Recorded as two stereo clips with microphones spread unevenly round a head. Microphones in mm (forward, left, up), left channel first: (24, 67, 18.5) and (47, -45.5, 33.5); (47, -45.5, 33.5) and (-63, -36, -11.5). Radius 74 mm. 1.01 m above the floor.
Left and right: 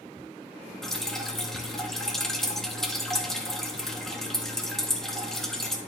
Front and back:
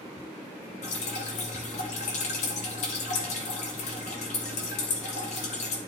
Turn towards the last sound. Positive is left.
turn(degrees=15)